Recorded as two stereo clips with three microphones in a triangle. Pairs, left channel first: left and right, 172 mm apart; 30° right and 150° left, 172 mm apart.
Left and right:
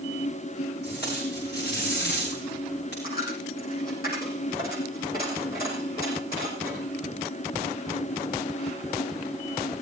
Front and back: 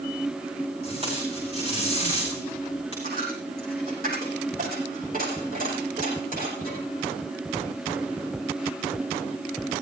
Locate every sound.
0.8 s tape being pulled: 95° left, 9.5 m
3.0 s a dropped coin: 120° left, 7.5 m